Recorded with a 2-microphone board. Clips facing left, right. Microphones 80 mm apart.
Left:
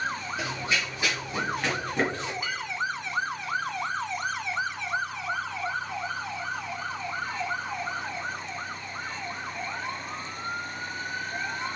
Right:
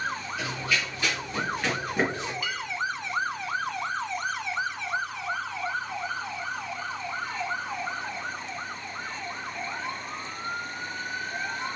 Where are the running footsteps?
30° left (ahead or behind), 1.7 m; by 2.3 s 25° right (ahead or behind), 1.3 m.